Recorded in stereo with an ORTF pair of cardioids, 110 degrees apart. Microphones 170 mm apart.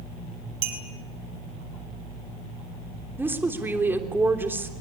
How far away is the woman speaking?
About 3 m.